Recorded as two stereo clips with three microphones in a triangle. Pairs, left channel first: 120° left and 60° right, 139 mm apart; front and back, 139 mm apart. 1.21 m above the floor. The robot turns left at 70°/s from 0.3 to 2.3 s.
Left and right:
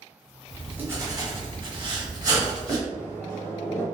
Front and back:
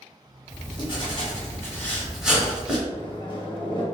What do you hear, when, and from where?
0.5 s writing: 30° left, 1.2 m; by 2.8 s 100° right, 1.2 m
2.9 s a microwave: 45° left, 1.0 m